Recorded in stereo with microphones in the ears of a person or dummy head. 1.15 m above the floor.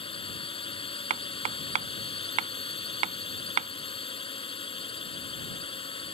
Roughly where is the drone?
Left.